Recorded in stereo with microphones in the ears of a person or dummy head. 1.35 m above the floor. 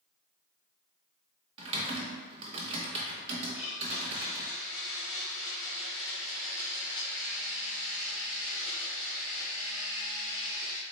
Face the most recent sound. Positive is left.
turn(degrees=60)  # may be behind; listen again after turning